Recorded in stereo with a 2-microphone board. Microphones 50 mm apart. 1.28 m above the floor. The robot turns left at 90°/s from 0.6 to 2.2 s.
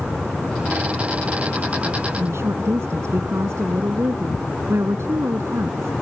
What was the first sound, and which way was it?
A woman speaking, 65° right (ahead or behind).